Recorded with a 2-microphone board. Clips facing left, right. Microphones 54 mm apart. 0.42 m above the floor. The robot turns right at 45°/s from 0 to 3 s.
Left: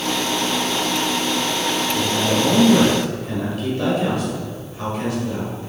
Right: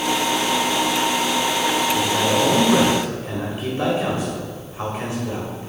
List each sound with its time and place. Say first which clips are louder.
1.9 s a man speaking: right 1 dB; 55° right (ahead or behind), 1.6 m; by 5.7 s 25° right (ahead or behind), 1.6 m